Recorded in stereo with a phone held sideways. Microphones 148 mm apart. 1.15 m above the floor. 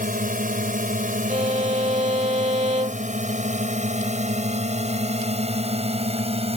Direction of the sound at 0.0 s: 80° right.